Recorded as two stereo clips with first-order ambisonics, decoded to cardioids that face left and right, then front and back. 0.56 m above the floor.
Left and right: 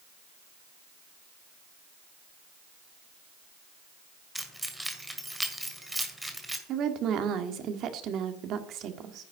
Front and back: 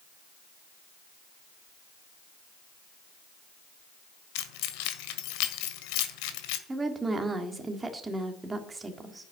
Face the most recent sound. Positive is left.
turn(degrees=-105)